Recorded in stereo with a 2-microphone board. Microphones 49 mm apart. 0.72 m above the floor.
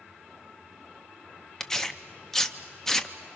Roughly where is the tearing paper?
Centre.